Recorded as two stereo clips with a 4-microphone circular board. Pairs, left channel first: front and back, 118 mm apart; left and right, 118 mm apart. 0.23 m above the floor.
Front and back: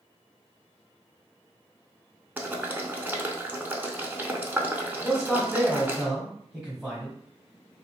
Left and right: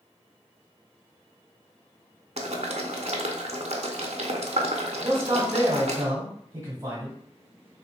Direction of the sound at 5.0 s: 110° right.